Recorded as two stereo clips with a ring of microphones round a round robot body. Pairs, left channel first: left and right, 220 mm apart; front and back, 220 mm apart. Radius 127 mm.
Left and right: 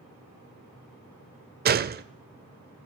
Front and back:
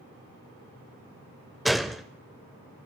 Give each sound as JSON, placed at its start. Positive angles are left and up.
{"t": 1.6, "sound": "a gunshot", "azimuth_deg": -90, "distance_m": 0.6}